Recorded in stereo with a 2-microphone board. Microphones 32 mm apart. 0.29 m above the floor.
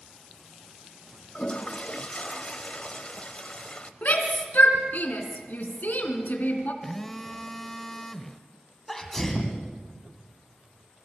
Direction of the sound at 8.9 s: 10° left (ahead or behind).